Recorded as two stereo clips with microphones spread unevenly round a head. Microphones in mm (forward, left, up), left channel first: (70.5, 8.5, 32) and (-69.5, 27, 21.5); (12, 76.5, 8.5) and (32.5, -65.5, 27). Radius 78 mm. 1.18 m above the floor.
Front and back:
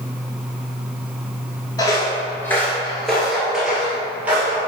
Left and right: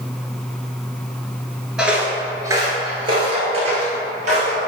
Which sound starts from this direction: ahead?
Footsteps, at 1.8 s.